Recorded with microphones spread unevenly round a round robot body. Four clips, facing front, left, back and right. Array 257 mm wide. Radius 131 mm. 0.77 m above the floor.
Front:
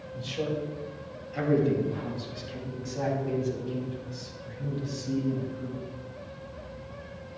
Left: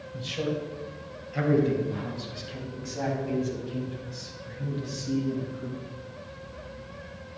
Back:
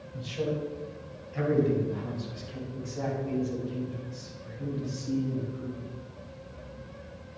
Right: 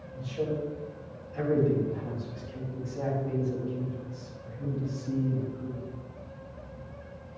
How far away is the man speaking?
About 4 m.